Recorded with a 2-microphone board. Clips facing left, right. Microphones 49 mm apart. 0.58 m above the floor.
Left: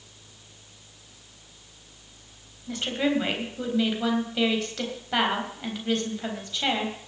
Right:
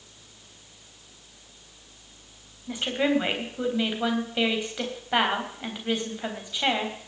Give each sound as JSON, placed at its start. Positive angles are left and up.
{"t": 2.7, "sound": "a woman speaking", "side_deg": -15, "distance_m": 3.5}